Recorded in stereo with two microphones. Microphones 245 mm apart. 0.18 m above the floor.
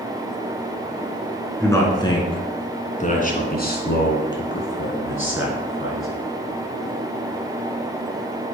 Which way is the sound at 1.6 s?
10° left (ahead or behind).